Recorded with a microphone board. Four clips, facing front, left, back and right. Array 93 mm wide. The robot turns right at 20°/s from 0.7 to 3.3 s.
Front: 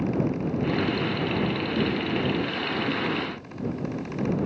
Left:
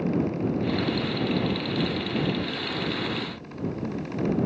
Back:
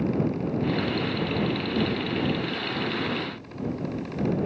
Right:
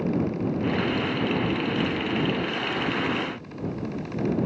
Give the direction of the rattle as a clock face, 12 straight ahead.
No rattle in this recording.